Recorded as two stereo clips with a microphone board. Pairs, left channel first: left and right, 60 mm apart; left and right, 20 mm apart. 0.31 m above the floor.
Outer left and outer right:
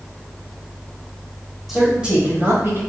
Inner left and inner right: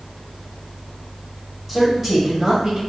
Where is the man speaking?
5° right (ahead or behind), 1.3 m; by 2.8 s 45° right (ahead or behind), 1.2 m.